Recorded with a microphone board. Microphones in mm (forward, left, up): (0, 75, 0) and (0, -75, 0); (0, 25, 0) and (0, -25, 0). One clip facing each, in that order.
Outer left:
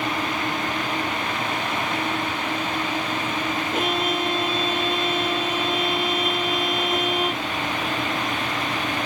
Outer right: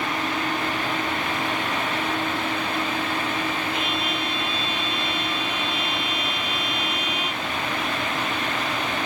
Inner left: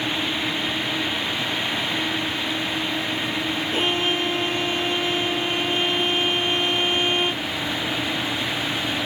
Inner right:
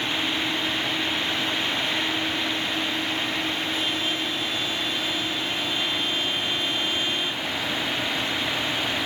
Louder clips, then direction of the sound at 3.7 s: Outer left 4 dB, inner left 4 dB; 45° left (ahead or behind).